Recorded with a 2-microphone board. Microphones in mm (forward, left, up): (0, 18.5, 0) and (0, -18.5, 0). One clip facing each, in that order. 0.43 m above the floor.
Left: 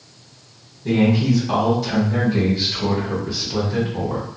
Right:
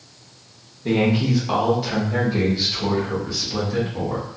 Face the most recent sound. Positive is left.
turn(degrees=15)  # may be behind; listen again after turning